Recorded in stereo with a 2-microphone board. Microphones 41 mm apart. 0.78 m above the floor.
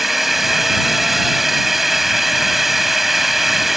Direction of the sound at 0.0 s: 5° right (ahead or behind).